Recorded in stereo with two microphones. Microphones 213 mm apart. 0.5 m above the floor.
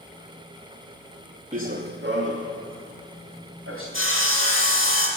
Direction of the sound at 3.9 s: 60° right (ahead or behind).